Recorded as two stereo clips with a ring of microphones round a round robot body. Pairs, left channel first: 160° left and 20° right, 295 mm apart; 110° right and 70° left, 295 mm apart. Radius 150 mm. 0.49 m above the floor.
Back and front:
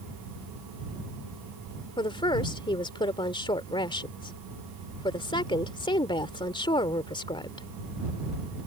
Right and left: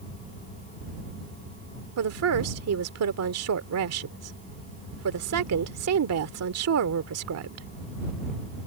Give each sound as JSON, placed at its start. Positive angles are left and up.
{"t": 2.0, "sound": "a woman speaking", "azimuth_deg": 85}